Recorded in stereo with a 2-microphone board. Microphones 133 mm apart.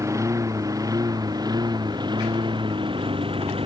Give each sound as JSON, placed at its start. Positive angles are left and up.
{"t": 0.0, "sound": "a lawn mower", "side_deg": -25}